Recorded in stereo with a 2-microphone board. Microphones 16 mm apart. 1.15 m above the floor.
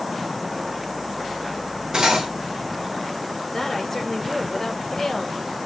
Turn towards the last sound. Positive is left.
turn(degrees=25)  # may be behind; listen again after turning